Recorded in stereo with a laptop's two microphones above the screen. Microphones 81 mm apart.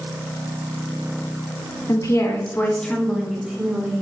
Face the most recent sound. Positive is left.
turn(degrees=-15)  # may be behind; listen again after turning